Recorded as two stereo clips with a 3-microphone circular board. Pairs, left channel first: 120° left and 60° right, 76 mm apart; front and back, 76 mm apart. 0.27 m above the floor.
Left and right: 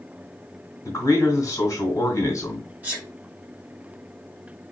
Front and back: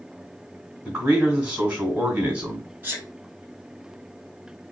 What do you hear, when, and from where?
0.8 s a man speaking: 135° left, 1.5 m
2.8 s a sneeze: 125° right, 1.6 m